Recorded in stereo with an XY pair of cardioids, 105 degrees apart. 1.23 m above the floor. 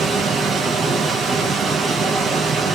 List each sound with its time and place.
0.0 s a machine running: 55° right, 0.9 m